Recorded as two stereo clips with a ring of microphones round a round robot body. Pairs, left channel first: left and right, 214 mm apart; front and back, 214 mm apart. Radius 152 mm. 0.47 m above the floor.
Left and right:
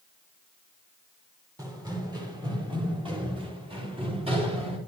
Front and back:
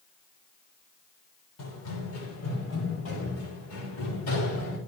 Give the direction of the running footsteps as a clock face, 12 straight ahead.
1 o'clock.